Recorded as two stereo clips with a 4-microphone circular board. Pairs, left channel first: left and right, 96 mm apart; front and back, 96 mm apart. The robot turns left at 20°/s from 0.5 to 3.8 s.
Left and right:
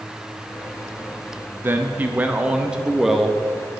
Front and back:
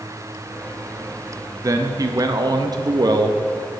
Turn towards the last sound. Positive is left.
turn(degrees=170)